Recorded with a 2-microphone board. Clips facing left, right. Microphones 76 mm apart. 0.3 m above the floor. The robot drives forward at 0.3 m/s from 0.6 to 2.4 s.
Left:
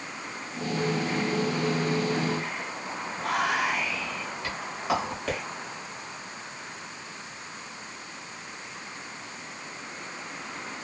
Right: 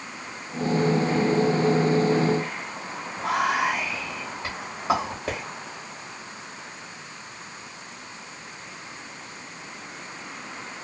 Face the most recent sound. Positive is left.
turn(degrees=-25)  # may be behind; listen again after turning